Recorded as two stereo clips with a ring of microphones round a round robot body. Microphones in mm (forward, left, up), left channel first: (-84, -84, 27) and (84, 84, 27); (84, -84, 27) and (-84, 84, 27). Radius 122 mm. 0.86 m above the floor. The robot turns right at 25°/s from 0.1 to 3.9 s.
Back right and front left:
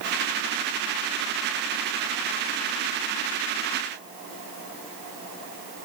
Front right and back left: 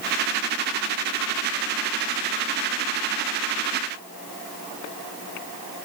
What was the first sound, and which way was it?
Only background noise.